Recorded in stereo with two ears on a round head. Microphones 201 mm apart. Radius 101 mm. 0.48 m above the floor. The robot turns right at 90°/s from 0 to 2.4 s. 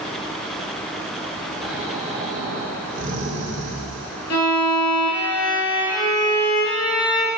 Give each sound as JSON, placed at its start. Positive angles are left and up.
{"t": 1.6, "sound": "snoring", "azimuth_deg": 175, "distance_m": 1.2}
{"t": 4.3, "sound": "a violin", "side_deg": 80, "distance_m": 1.2}